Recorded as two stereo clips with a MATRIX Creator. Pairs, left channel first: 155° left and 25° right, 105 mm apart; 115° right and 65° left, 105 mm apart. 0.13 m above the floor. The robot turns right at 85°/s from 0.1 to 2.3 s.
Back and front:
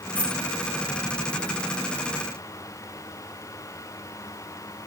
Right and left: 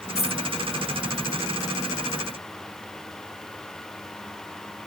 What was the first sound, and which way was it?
A dropped coin, 130° right.